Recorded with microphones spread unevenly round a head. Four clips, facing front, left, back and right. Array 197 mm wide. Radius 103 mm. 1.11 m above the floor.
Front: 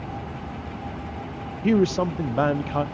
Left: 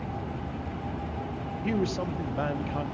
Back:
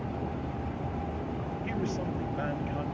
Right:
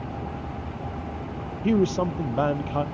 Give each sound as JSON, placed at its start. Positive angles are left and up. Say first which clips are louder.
{"t": 1.6, "sound": "a man speaking", "louder": "right 7 dB, front 14 dB", "azimuth_deg": -30, "distance_m": 0.6}